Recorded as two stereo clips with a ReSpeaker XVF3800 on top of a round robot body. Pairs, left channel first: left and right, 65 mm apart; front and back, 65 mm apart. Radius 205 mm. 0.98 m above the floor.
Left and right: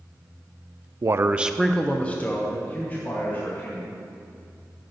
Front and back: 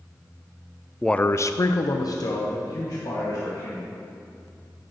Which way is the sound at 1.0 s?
85° right.